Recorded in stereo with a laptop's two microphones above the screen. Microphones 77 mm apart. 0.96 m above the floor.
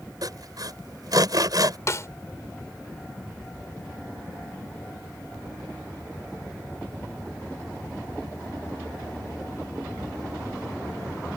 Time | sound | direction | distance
0.2 | sawing | 60° right (ahead or behind) | ?
1.9 | a snare drum | 40° left (ahead or behind) | ?